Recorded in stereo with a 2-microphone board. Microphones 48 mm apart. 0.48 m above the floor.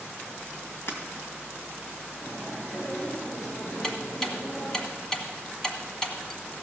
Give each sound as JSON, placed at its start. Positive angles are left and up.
{"t": 0.9, "sound": "breaking glass", "side_deg": 65, "distance_m": 2.0}
{"t": 2.2, "sound": "chewing", "side_deg": 65, "distance_m": 7.0}
{"t": 3.8, "sound": "ticking", "side_deg": 15, "distance_m": 1.4}